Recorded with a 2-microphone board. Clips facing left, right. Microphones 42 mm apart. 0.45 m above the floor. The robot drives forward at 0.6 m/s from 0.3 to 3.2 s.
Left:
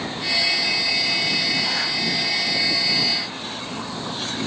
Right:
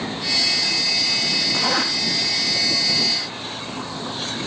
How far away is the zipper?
About 3 m.